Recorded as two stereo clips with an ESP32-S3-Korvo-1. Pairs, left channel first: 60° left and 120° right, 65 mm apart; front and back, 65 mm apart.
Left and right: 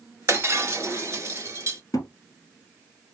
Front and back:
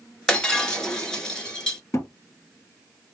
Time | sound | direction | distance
0.3 | breaking glass | 75° right | 0.9 m
1.9 | a thud | 35° left | 1.4 m